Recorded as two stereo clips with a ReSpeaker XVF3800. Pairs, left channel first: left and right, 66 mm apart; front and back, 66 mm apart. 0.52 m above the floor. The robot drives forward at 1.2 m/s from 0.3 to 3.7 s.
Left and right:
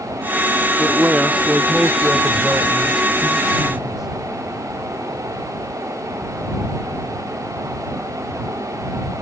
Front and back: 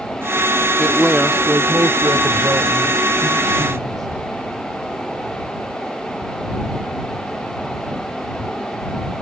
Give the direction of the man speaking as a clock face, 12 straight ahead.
2 o'clock.